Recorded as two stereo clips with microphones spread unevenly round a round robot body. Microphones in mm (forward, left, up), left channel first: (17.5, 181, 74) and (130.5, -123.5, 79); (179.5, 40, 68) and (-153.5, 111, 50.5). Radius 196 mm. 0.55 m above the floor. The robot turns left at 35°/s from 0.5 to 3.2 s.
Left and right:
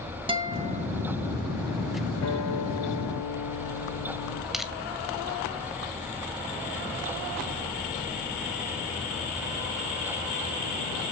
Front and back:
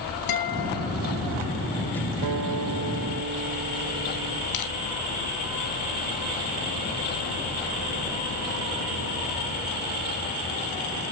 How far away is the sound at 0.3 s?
About 3.5 m.